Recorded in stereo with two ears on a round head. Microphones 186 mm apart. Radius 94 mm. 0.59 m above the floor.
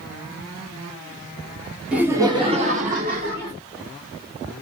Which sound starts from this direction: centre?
Laughter, at 1.9 s.